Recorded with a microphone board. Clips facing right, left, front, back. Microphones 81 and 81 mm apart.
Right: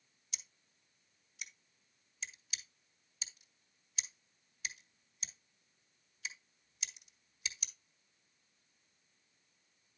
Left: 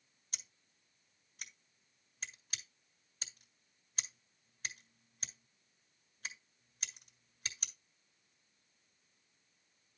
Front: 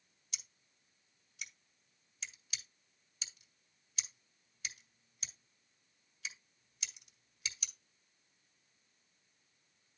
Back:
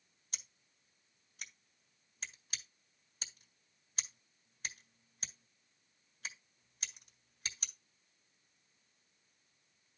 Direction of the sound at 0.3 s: 135° left.